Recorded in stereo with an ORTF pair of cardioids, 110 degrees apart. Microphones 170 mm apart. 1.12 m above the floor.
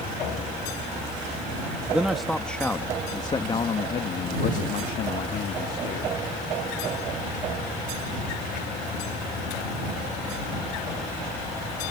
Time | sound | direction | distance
1.9 | a man speaking | 5° right | ?